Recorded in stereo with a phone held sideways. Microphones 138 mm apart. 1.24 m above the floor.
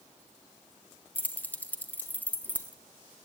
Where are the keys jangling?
10° left (ahead or behind), 0.8 m.